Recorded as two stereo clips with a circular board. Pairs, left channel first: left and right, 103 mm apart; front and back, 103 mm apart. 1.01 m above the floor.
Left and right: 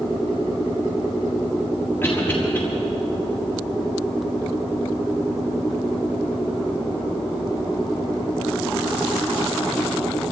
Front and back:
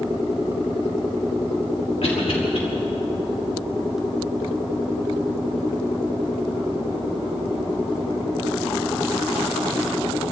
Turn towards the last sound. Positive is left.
turn(degrees=20)